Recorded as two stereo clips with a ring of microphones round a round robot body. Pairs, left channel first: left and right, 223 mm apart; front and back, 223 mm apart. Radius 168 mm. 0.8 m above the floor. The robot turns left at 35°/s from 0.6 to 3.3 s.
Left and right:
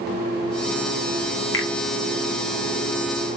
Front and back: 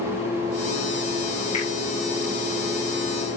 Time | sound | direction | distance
1.5 | a finger snap | 70° left | 2.5 m